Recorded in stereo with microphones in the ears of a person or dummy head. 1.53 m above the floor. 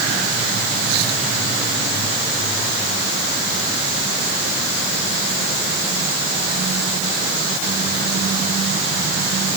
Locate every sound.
Only background noise.